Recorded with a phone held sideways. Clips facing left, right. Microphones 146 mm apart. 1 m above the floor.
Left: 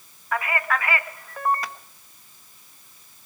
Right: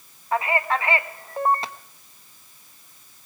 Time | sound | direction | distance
0.3 | a man speaking | 25° right (ahead or behind) | 1.2 m